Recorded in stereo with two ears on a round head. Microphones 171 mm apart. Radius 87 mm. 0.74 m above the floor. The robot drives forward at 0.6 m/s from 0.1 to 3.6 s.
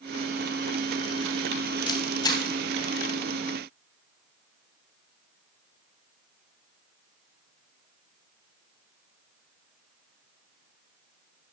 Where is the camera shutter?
25° left (ahead or behind), 2.5 m; by 2.4 s 20° left (ahead or behind), 3 m.